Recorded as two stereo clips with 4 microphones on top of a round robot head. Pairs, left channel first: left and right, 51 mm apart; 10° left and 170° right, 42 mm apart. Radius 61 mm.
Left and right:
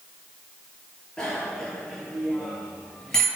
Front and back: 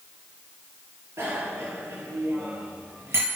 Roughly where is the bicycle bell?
Behind.